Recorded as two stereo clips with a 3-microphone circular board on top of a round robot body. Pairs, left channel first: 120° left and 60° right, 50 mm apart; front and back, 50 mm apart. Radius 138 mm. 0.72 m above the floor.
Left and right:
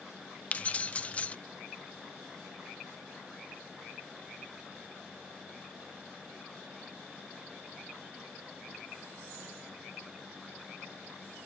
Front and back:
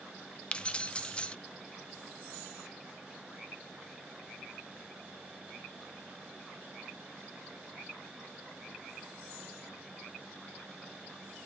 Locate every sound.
0.5 s keys jangling: 60° left, 0.6 m